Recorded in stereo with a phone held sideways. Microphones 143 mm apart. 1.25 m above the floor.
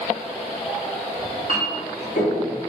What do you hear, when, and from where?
1.2 s a clink: 65° left (ahead or behind), 1.4 m